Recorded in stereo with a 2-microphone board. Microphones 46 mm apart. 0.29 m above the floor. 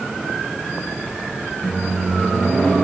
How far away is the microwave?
About 2.5 m.